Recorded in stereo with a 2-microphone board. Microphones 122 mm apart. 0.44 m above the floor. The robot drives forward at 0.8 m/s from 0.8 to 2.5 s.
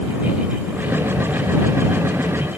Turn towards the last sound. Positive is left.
No sound to turn to.